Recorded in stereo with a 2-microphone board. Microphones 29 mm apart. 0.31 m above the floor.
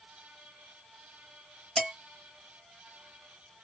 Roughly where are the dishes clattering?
Left.